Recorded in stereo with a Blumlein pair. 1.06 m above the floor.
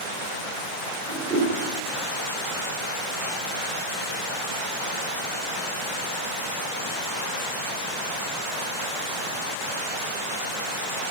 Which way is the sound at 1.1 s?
15° right.